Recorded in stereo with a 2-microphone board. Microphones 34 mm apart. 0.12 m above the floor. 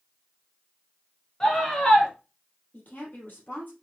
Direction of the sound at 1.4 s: 20° left (ahead or behind).